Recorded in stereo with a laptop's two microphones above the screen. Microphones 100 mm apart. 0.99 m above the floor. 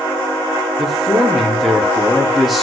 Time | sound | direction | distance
0.8 | a man speaking | centre (ahead or behind) | 1.3 m